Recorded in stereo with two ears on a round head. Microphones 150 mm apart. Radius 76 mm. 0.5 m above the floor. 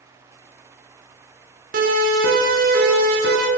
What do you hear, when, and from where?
1.7 s a siren: 55° right (ahead or behind), 9 m; by 3.5 s 60° right (ahead or behind), 11.5 m